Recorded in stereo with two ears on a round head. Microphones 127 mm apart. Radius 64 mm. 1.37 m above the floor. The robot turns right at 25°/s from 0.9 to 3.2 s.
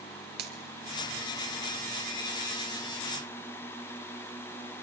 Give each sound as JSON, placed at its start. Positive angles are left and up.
{"t": 0.4, "sound": "a finger snap", "side_deg": -80, "distance_m": 2.5}